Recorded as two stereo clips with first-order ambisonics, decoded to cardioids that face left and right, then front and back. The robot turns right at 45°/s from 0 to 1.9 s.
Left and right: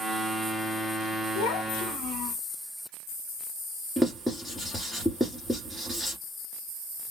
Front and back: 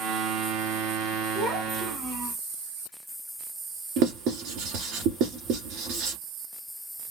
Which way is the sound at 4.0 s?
175° right.